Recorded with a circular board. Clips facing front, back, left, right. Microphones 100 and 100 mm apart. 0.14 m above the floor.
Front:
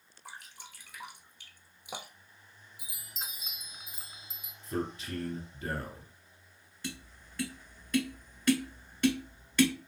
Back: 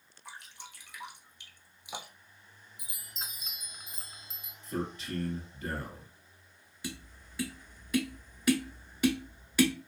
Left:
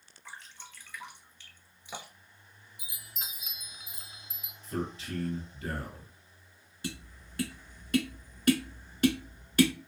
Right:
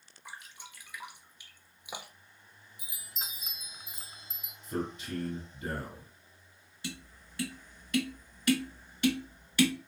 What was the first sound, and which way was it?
Dripping, 15° right.